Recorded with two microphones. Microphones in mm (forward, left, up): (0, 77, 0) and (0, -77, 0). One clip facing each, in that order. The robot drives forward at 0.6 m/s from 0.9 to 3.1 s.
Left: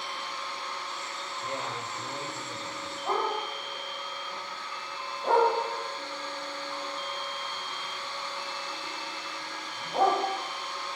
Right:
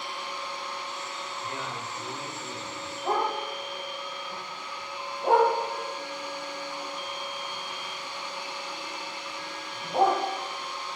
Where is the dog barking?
25° right (ahead or behind), 4 m.